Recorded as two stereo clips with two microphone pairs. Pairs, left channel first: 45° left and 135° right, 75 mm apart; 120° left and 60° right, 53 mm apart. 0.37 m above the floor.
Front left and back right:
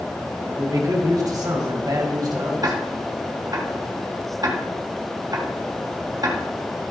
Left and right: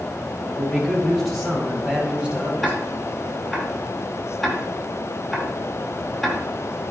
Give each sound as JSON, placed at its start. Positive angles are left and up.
{"t": 0.4, "sound": "a man speaking", "azimuth_deg": -155, "distance_m": 2.5}
{"t": 2.6, "sound": "ticking", "azimuth_deg": -150, "distance_m": 1.9}